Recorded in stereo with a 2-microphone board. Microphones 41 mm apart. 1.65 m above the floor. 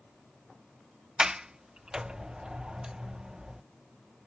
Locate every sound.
1.2 s a sliding door: 20° right (ahead or behind)